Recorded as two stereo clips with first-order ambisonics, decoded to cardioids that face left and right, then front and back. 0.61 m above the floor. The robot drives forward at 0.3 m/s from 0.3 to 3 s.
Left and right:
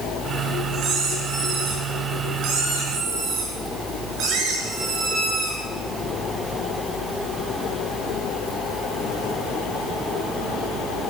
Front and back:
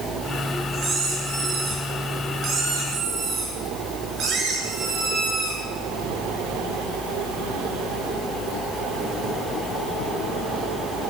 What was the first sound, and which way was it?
A squeak, 125° right.